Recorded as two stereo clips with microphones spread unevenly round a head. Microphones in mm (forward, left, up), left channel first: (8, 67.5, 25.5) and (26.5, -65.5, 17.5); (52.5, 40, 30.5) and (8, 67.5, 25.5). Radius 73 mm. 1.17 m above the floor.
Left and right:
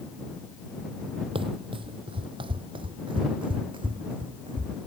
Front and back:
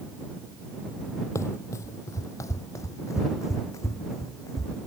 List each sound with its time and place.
1.4 s running footsteps: 35° right; by 4.8 s 30° right